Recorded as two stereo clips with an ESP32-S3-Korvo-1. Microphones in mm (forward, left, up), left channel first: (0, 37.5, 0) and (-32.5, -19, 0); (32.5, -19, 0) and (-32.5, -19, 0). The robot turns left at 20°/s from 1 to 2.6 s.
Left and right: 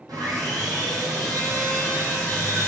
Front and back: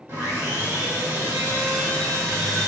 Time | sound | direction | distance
0.1 | sawing | 130° right | 2.0 m